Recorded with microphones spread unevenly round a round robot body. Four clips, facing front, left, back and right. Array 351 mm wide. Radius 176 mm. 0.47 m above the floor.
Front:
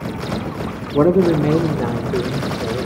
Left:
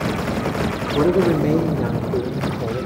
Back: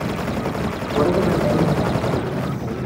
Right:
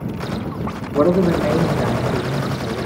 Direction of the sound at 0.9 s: 5° left.